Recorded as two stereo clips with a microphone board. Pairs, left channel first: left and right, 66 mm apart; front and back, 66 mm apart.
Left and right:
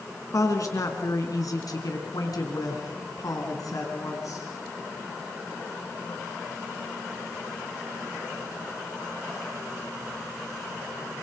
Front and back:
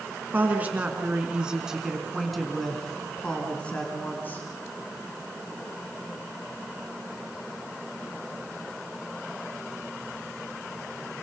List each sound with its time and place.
0.3 s a woman speaking: 120° left, 4 m; by 4.5 s 60° left, 4 m